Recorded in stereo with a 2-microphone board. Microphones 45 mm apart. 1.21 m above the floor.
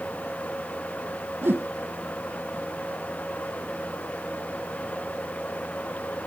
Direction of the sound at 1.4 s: 55° right (ahead or behind).